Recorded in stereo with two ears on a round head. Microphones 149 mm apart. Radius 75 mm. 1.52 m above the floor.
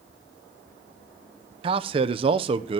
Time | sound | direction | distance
1.6 | a man speaking | 35° right (ahead or behind) | 0.8 m